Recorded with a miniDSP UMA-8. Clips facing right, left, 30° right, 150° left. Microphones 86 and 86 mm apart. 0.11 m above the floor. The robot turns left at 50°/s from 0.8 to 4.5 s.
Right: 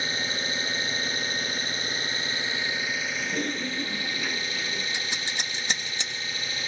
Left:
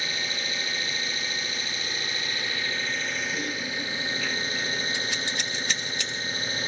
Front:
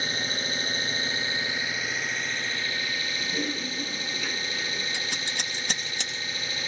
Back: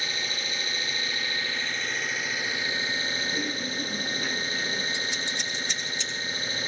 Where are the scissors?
25° right, 2.5 m.